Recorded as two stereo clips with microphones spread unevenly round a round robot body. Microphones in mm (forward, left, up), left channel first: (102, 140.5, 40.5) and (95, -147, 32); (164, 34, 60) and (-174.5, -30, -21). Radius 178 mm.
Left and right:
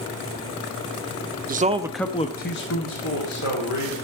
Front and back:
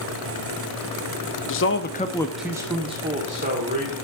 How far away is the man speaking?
About 0.8 m.